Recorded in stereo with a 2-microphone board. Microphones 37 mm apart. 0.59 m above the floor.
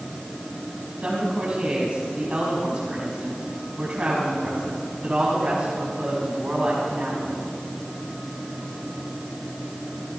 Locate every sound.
1.0 s a woman speaking: 30° right (ahead or behind), 4 m